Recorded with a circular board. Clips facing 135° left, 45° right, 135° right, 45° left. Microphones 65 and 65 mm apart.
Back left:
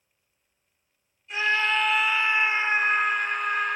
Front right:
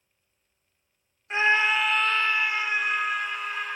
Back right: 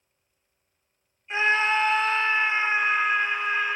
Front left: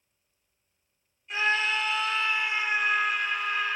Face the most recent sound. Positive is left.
turn(degrees=165)